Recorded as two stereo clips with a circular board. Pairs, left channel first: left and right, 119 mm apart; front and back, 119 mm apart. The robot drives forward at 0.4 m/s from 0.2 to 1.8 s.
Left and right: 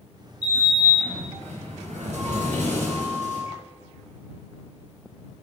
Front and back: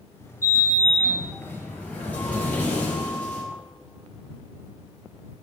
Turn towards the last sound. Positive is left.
turn(degrees=-75)